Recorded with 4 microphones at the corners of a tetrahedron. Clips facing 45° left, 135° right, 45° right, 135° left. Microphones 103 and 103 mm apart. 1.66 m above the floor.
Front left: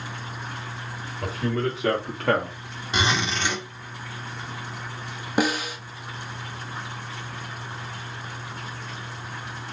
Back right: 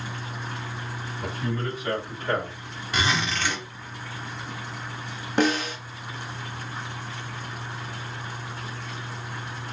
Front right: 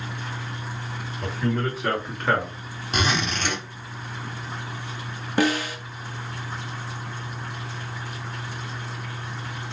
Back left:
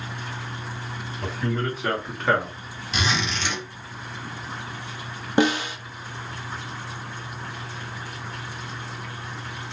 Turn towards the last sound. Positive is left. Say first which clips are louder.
# back right 1 dB, back left 1 dB
turn(degrees=110)